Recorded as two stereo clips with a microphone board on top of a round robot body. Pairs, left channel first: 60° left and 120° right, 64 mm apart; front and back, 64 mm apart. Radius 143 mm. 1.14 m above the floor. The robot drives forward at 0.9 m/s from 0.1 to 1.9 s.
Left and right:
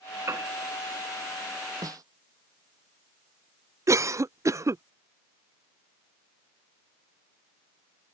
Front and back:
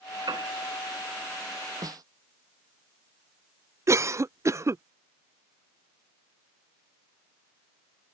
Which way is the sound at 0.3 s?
165° right.